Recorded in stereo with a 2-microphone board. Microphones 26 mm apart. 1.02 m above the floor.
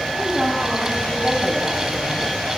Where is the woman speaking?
25° right (ahead or behind), 8 m; by 2.3 s 10° right (ahead or behind), 6.5 m.